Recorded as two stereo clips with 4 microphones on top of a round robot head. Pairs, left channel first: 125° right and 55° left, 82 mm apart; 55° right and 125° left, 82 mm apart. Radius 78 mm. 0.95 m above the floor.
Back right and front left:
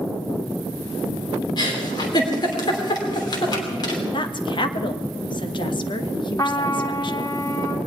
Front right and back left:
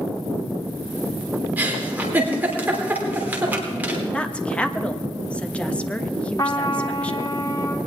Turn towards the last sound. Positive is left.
turn(degrees=-90)